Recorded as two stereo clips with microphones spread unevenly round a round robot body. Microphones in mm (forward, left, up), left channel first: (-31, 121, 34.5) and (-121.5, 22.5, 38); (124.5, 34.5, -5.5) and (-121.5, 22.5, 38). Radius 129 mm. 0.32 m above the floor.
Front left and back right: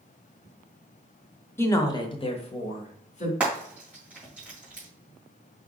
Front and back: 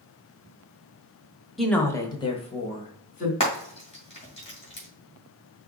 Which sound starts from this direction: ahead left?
A woman speaking, at 1.6 s.